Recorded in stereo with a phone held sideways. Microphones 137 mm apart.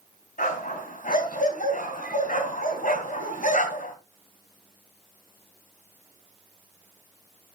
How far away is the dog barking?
About 3 m.